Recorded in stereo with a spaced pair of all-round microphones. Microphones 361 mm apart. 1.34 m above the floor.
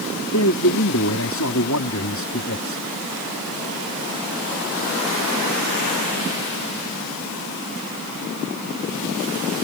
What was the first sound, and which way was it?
A man speaking, 50° left (ahead or behind).